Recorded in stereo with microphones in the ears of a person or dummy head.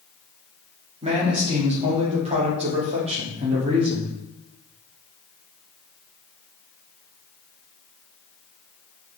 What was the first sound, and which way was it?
A man speaking, 35° right (ahead or behind).